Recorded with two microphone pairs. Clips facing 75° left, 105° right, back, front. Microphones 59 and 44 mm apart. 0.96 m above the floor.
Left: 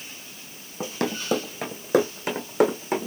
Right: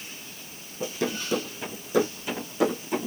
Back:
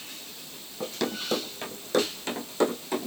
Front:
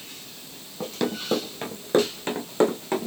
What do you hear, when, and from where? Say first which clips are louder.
0.8 s running footsteps: left 1 dB, front 3 dB; 80° left, 1.7 m; by 3.1 s 45° left, 2.5 m